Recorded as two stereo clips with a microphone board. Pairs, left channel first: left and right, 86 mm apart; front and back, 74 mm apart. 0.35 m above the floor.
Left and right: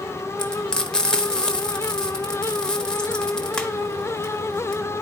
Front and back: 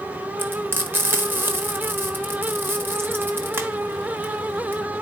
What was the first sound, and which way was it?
Frying, 160° left.